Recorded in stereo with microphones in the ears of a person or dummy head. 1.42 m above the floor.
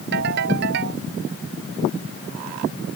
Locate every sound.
0.1 s a ringtone: 60° right (ahead or behind)